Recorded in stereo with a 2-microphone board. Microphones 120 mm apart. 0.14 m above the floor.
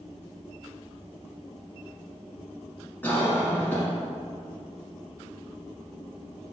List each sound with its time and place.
3.0 s a cough: 15° left (ahead or behind), 1.1 m